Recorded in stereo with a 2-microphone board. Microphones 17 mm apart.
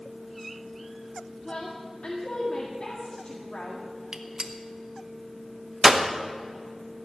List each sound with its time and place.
1.4 s a woman speaking: 65° left (ahead or behind), 1.8 m
4.1 s a gunshot: 55° right (ahead or behind), 1.0 m